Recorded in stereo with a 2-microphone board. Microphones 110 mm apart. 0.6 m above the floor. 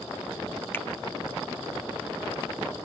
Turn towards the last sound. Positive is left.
turn(degrees=20)  # may be behind; listen again after turning